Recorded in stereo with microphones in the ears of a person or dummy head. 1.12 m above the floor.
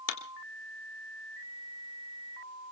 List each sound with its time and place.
0.1 s a clap: 65° left (ahead or behind), 2 m